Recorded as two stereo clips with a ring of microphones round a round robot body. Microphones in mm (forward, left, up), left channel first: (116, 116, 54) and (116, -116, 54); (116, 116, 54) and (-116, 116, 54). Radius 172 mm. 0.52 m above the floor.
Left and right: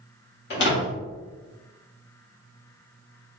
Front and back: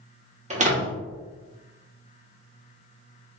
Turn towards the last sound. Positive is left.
turn(degrees=125)